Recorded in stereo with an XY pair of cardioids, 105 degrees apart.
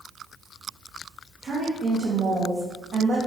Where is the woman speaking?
35° right, 2.5 m; by 3.2 s 55° right, 1.4 m.